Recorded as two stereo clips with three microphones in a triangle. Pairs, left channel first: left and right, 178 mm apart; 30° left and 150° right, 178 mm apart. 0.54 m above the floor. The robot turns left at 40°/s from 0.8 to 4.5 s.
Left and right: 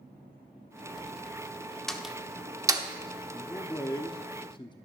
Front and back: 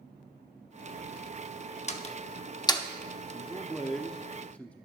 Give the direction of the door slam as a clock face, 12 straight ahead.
12 o'clock.